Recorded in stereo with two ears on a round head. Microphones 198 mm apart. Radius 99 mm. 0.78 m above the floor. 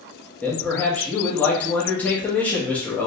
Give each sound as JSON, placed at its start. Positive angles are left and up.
{"t": 0.4, "sound": "a man speaking", "side_deg": 5, "distance_m": 0.7}